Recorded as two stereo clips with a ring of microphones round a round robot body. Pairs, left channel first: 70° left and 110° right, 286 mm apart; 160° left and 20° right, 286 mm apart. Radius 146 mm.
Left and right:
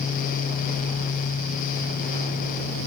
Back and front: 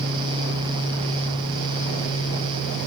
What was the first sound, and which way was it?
Only background noise.